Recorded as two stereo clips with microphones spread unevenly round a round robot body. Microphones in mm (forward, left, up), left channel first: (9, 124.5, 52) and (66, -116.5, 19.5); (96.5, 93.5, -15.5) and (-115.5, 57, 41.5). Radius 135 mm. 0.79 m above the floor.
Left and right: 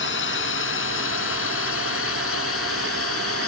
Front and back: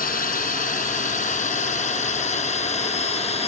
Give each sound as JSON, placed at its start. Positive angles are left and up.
{"t": 0.0, "sound": "a drone", "azimuth_deg": 60}